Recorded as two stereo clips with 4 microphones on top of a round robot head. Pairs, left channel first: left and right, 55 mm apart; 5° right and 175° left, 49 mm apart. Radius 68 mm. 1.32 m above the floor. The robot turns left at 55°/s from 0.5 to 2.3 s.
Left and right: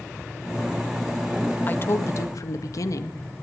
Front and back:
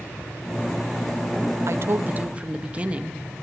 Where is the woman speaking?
150° left, 1.8 m; by 3.2 s 115° left, 1.8 m.